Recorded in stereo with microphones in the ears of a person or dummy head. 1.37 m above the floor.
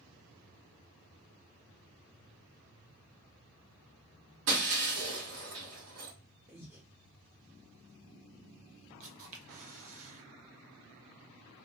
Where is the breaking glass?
60° right (ahead or behind), 1.5 m.